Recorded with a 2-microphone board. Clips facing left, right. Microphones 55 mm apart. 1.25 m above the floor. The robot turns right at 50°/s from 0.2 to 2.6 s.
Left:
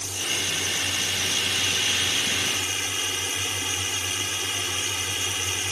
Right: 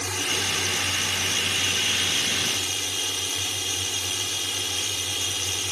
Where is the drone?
90° right; by 5.7 s 30° left.